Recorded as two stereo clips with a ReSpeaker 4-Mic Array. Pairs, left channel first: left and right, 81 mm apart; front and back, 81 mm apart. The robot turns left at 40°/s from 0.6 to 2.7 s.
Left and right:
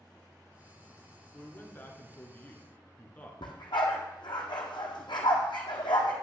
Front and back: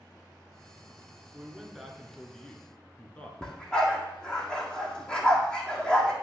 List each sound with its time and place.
1.3 s a man speaking: 105° left, 1.4 m; by 3.3 s 55° left, 1.4 m
3.4 s a dog barking: 80° left, 1.7 m